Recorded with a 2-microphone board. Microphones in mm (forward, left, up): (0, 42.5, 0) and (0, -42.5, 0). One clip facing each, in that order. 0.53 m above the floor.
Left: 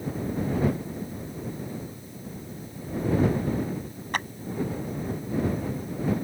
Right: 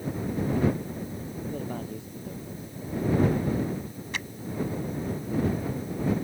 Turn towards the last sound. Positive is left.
turn(degrees=50)  # may be behind; listen again after turning